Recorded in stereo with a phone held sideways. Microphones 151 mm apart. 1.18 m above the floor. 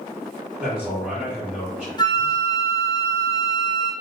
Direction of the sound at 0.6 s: Centre (ahead or behind).